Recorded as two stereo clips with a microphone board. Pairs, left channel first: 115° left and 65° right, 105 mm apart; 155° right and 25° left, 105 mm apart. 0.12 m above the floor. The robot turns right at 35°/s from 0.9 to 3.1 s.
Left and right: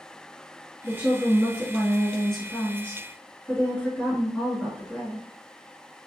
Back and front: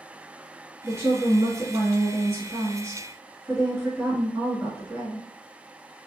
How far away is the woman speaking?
About 1.6 m.